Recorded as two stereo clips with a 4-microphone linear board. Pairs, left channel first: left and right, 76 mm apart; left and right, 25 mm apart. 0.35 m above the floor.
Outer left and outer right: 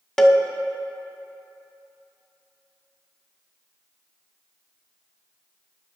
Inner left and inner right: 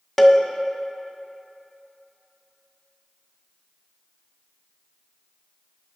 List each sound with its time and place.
0.2 s a cowbell: 5° left (ahead or behind), 0.5 m